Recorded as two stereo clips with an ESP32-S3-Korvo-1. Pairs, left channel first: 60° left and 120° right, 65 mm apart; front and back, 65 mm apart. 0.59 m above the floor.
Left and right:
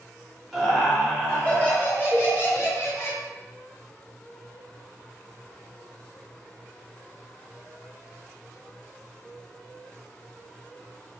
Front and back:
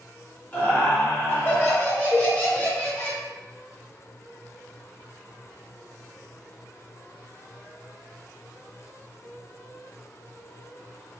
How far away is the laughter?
About 1.4 m.